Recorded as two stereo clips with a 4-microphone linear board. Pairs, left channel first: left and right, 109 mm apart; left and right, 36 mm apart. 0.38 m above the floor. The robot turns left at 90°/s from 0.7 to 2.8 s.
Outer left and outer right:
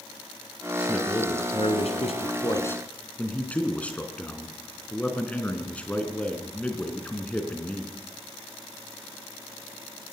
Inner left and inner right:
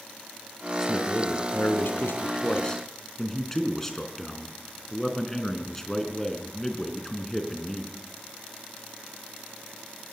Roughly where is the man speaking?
Behind.